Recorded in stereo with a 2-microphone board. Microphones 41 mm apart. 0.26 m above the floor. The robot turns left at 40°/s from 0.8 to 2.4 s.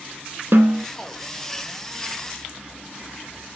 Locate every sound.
0.5 s a snare drum: 70° right (ahead or behind), 0.6 m; by 0.9 s 75° right (ahead or behind), 0.6 m